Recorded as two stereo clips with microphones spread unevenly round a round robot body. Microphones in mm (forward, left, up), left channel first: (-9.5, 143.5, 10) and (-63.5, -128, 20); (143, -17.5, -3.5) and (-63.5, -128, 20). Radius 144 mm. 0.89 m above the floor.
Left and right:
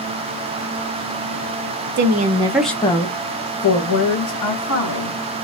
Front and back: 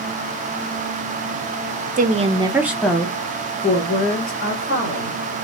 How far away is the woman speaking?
About 0.6 m.